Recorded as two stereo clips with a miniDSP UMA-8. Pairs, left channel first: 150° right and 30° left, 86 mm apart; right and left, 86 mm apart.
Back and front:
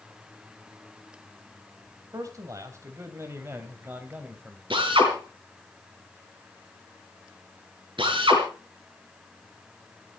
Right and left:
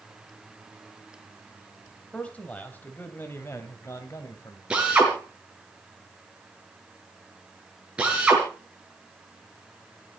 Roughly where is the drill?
Ahead.